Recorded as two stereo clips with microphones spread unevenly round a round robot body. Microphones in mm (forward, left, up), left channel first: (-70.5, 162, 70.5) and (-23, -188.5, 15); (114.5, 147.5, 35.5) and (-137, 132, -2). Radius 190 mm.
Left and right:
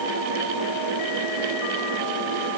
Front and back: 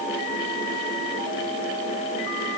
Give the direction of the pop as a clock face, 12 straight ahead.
I don't hear a pop.